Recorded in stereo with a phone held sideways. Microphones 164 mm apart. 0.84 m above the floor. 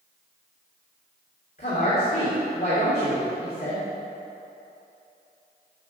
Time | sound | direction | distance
1.6 | a woman speaking | 70° left (ahead or behind) | 2.5 m